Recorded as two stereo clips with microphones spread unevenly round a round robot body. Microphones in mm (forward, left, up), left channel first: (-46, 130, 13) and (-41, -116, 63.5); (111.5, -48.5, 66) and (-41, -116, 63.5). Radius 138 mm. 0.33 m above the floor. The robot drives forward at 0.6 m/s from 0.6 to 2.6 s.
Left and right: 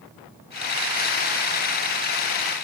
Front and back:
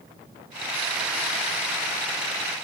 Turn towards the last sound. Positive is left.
No sound to turn to.